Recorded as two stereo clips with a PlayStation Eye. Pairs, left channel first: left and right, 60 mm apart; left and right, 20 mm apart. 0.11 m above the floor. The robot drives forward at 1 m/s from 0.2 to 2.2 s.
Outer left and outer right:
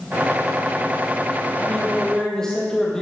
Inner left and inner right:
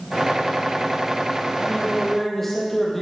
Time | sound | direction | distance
1.6 | a man speaking | 15° left (ahead or behind) | 2.5 m